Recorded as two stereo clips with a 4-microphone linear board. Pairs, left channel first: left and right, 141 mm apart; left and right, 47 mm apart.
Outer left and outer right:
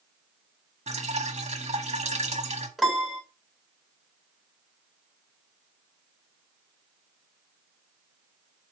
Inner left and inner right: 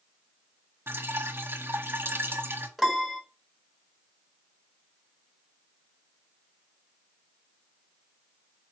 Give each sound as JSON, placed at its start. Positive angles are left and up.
{"t": 0.9, "sound": "dripping", "side_deg": -50, "distance_m": 1.4}
{"t": 2.8, "sound": "a piano", "side_deg": 0, "distance_m": 1.1}